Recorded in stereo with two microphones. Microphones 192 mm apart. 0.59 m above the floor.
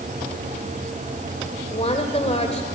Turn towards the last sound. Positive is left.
turn(degrees=35)  # may be behind; listen again after turning